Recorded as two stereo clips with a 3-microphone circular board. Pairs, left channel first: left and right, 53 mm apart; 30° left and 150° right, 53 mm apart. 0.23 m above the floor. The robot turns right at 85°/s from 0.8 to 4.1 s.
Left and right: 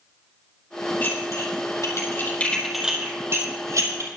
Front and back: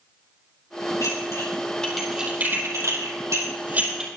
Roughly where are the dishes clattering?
Ahead left.